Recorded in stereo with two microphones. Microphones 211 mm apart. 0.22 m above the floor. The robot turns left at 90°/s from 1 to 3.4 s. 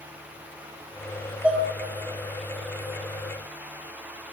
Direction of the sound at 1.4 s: 10° right (ahead or behind).